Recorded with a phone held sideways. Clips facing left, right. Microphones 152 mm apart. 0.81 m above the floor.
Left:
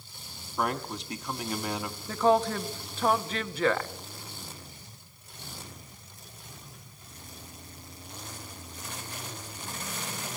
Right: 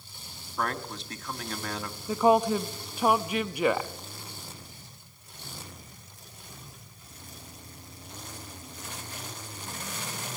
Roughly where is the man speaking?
Centre.